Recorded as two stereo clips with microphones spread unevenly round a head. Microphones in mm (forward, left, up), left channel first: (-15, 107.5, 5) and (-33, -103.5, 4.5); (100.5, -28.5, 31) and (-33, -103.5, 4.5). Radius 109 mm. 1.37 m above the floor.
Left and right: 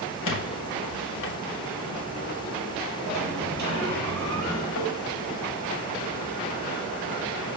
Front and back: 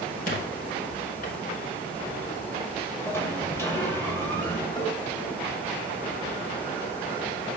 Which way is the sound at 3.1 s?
45° right.